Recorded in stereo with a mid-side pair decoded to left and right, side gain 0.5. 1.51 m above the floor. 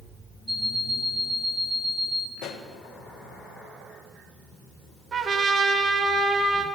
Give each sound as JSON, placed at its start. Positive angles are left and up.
{"t": 0.5, "sound": "an alarm clock", "azimuth_deg": -10, "distance_m": 4.5}
{"t": 2.4, "sound": "a pop", "azimuth_deg": 70, "distance_m": 1.4}
{"t": 5.1, "sound": "a trumpet", "azimuth_deg": -35, "distance_m": 1.5}